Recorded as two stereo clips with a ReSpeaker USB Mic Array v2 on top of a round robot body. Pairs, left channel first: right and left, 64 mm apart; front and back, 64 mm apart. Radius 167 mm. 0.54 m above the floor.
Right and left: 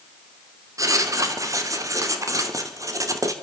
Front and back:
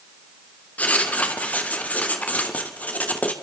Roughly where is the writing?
Ahead left.